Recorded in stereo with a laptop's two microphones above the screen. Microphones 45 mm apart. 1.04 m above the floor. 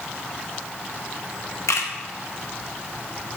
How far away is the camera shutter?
About 0.9 m.